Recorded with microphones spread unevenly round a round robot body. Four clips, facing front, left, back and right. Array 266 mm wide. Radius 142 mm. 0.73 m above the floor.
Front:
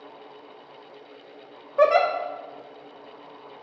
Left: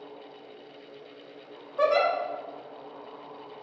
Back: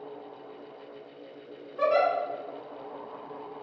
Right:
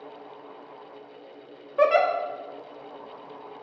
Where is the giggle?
25° right, 1.1 m.